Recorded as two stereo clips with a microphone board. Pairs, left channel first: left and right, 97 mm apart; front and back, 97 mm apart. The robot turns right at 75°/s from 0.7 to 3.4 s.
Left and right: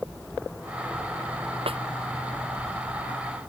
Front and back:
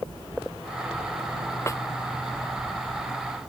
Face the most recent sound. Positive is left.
turn(degrees=65)